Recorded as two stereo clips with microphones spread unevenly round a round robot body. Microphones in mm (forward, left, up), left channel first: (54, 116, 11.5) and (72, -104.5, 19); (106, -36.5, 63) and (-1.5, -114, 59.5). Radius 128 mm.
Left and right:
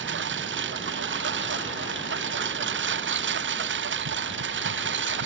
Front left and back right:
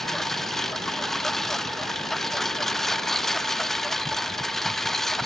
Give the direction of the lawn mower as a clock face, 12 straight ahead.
2 o'clock.